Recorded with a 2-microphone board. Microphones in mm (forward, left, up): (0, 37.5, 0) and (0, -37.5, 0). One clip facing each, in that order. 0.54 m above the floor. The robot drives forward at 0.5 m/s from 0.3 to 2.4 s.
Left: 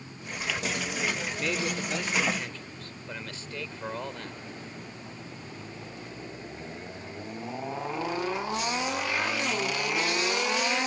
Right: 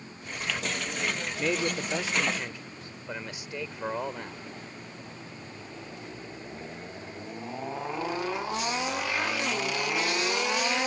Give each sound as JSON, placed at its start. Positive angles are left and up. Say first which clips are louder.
{"t": 1.4, "sound": "a man speaking", "louder": "right 4 dB", "side_deg": -20}